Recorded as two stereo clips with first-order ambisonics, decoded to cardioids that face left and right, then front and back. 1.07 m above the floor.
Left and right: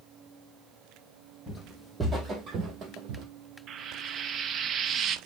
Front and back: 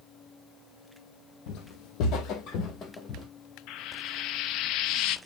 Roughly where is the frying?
Ahead right.